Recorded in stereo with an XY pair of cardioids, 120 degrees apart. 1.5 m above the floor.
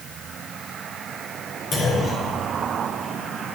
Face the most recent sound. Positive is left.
turn(degrees=45)